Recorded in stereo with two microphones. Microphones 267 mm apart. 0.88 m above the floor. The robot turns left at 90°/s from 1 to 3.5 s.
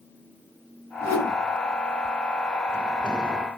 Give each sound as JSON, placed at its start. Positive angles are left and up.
{"t": 1.0, "sound": "a whoosh", "azimuth_deg": 115, "distance_m": 1.6}